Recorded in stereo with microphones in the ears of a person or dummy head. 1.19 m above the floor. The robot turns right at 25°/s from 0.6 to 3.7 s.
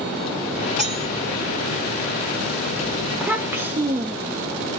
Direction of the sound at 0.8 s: Centre (ahead or behind).